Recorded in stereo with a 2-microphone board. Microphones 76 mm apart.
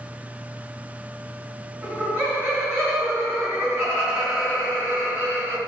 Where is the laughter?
25° right (ahead or behind), 1.5 m; by 5.6 s 35° right (ahead or behind), 3.5 m.